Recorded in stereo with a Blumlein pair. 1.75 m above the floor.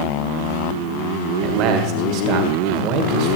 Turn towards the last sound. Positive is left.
turn(degrees=-40)